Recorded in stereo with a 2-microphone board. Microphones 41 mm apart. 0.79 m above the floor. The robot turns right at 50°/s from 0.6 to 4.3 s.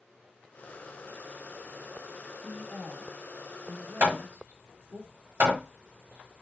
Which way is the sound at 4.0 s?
75° right (ahead or behind).